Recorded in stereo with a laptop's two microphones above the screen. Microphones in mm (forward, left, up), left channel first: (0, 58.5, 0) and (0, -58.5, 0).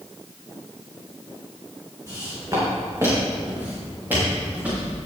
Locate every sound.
2.1 s footsteps: 35° right (ahead or behind), 3.5 m; by 4.8 s 10° right (ahead or behind), 6.5 m